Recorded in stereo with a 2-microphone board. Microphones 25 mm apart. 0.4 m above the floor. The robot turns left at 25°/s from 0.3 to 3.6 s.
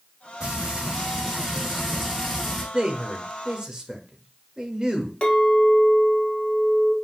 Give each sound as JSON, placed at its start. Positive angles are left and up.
{"t": 0.4, "sound": "frying", "azimuth_deg": -130, "distance_m": 2.5}
{"t": 2.7, "sound": "a man speaking", "side_deg": -30, "distance_m": 1.0}
{"t": 5.2, "sound": "a clink", "side_deg": 45, "distance_m": 1.1}